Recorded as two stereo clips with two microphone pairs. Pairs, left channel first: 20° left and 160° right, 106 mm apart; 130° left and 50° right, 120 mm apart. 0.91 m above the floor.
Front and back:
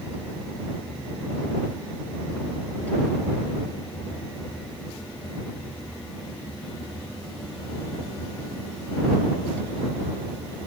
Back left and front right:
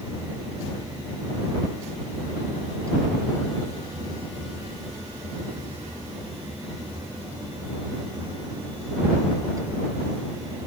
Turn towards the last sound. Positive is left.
No sound to turn to.